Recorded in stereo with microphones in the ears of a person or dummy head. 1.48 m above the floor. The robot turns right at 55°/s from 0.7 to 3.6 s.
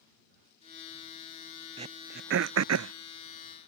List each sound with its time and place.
1.8 s throat clearing: 35° right (ahead or behind); by 2.9 s 80° right